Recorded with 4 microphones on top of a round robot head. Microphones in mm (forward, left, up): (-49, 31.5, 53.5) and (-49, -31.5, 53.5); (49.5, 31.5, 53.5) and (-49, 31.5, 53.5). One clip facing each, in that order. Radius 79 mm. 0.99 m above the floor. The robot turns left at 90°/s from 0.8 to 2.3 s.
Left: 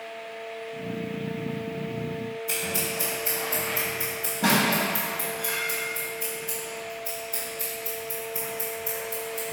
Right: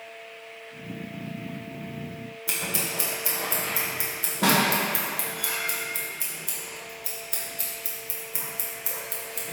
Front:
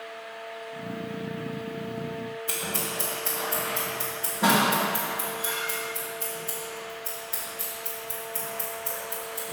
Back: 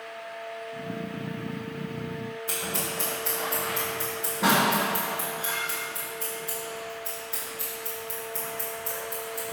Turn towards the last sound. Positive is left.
turn(degrees=-90)